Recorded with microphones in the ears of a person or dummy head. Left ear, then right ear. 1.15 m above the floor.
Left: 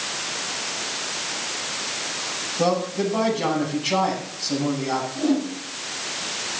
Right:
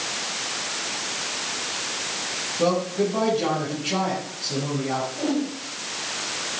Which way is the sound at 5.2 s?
10° right (ahead or behind).